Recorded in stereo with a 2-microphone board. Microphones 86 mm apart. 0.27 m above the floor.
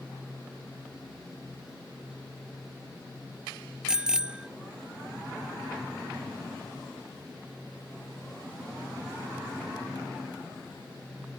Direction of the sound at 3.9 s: 10° right (ahead or behind).